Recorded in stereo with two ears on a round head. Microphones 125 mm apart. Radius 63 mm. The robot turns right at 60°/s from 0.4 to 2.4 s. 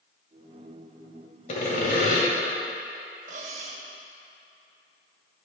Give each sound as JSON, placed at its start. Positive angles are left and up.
{"t": 1.5, "sound": "sawing", "azimuth_deg": 60, "distance_m": 1.6}
{"t": 3.3, "sound": "cutlery clinking", "side_deg": -55, "distance_m": 0.9}